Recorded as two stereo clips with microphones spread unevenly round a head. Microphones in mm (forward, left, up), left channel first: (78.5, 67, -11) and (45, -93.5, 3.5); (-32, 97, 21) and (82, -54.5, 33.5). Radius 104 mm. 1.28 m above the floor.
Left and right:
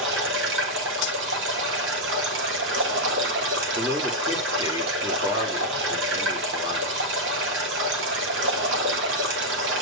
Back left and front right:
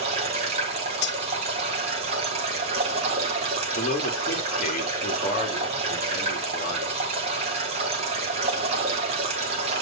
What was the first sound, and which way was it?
Running water, 115° right.